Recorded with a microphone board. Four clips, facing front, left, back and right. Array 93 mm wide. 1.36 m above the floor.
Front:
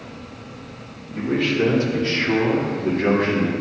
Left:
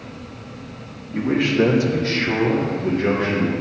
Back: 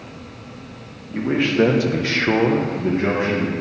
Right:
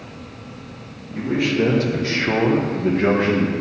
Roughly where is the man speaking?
Behind left.